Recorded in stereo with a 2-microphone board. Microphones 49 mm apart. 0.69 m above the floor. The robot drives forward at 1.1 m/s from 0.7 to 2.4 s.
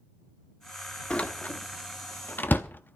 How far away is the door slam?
About 1.2 m.